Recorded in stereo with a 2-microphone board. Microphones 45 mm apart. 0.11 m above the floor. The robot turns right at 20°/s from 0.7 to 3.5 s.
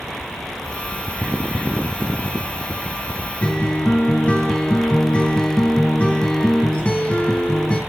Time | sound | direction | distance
3.4 | a guitar | 25° left (ahead or behind) | 1.6 m